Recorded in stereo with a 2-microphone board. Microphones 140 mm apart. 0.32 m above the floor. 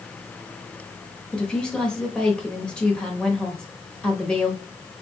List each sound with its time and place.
1.3 s a woman speaking: 5° left (ahead or behind), 1.0 m